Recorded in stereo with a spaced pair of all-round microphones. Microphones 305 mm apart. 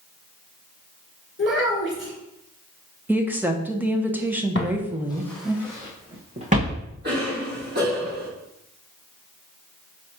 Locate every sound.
1.4 s a child speaking: 40° left (ahead or behind), 2 m
3.1 s a woman speaking: 5° right (ahead or behind), 1.0 m
4.5 s footsteps: 40° left (ahead or behind), 1.5 m; by 6.8 s 25° right (ahead or behind), 3.5 m
7.0 s a cough: 30° right (ahead or behind), 4 m